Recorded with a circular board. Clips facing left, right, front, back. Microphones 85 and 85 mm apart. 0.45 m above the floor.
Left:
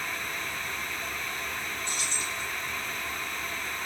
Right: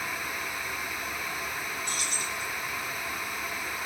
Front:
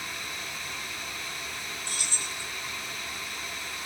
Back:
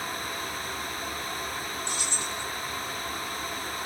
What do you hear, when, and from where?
1.9 s keys jangling: 125° left, 0.7 m